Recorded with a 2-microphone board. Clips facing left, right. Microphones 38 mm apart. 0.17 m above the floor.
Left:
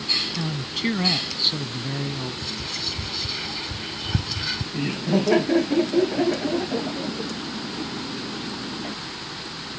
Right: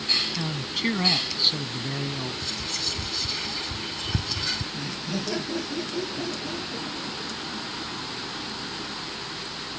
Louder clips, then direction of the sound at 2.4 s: Left 1 dB; 10° left (ahead or behind).